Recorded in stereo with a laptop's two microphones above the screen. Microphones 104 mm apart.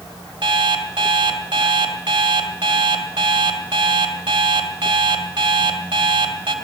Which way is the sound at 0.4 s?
55° right (ahead or behind).